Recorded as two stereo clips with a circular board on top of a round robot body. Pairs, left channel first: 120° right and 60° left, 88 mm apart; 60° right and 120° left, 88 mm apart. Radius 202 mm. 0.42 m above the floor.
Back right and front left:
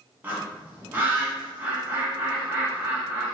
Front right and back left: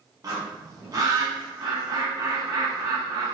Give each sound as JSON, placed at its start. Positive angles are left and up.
{"t": 0.2, "sound": "a bird", "azimuth_deg": 115, "distance_m": 1.7}